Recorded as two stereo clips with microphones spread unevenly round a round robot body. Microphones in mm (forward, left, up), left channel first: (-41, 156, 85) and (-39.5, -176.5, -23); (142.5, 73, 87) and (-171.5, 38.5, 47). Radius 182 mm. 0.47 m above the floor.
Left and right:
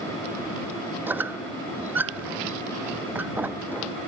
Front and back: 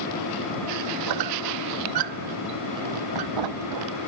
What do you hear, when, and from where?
1.1 s a squeak: 175° right